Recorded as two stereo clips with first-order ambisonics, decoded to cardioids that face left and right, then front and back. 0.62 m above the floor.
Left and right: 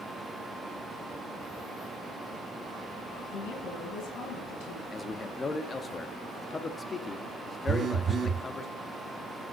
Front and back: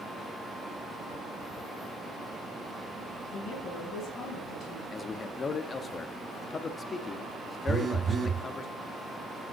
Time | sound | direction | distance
3.3 | a woman speaking | 55° left | 7 m
4.9 | a man speaking | 40° left | 0.7 m
7.7 | a phone buzzing | 130° right | 0.9 m